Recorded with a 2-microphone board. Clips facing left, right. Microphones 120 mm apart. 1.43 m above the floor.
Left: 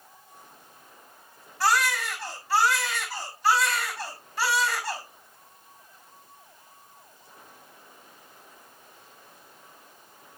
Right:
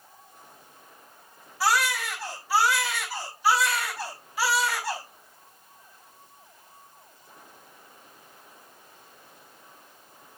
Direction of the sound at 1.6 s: 5° right (ahead or behind).